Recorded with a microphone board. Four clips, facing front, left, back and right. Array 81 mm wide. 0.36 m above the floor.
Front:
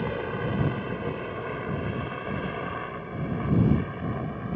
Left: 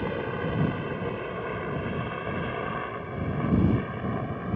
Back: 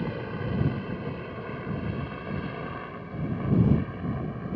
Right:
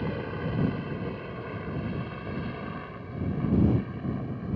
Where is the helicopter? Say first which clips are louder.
Left 3 dB, front 3 dB; 40° left; by 4.6 s 70° left.